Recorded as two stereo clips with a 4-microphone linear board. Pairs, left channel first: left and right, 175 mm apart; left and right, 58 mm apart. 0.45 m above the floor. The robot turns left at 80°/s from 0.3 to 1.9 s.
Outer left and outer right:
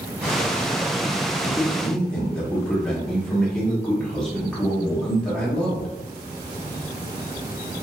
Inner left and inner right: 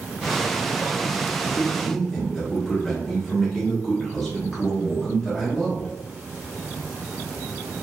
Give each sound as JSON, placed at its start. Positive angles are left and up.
{"t": 1.4, "sound": "a man speaking", "side_deg": -10, "distance_m": 1.2}